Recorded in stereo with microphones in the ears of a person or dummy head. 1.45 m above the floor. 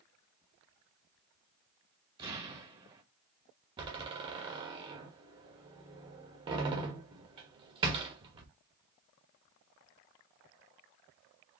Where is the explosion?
25° right (ahead or behind), 1.3 m.